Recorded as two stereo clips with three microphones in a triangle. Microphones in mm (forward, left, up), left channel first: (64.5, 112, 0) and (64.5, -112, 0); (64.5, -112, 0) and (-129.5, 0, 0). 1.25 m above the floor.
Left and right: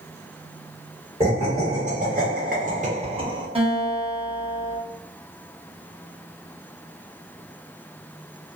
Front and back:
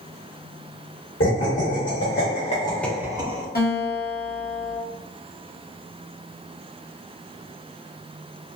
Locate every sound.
1.2 s laughter: 25° right, 1.1 m; by 3.5 s 155° right, 0.7 m
3.5 s a guitar: 35° right, 0.9 m